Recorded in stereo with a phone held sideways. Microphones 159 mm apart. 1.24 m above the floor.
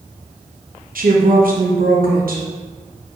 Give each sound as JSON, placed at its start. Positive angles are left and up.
{"t": 0.9, "sound": "a woman speaking", "side_deg": -65, "distance_m": 0.9}